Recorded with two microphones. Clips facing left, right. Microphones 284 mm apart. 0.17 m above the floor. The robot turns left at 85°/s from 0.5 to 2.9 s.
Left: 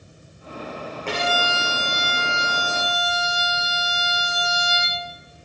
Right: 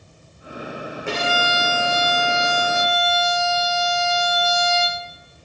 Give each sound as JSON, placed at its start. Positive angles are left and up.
{"t": 1.1, "sound": "a violin", "azimuth_deg": -170, "distance_m": 6.5}